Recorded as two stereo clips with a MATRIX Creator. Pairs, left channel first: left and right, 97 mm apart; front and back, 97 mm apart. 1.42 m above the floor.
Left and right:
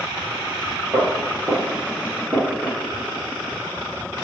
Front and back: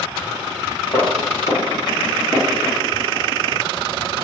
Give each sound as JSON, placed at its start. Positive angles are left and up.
{"t": 0.9, "sound": "footsteps", "azimuth_deg": -10, "distance_m": 2.0}